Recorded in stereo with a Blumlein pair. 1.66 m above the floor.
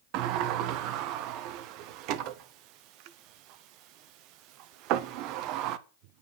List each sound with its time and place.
0.1 s a sliding door: 40° right, 0.9 m